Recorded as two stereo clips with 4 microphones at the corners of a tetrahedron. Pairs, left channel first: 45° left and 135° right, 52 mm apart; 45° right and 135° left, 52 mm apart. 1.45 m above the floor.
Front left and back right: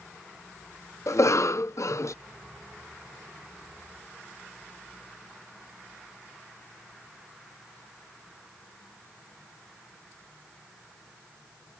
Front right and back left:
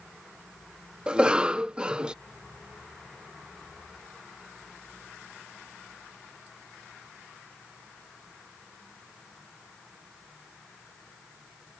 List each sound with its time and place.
1.1 s a cough: 60° left